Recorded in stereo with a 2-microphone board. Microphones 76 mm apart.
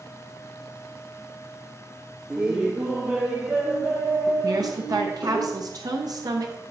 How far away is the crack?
I don't hear a crack.